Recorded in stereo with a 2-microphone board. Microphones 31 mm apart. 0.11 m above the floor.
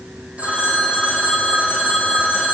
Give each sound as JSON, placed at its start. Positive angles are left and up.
{"t": 0.4, "sound": "a phone ringing", "side_deg": -45, "distance_m": 3.0}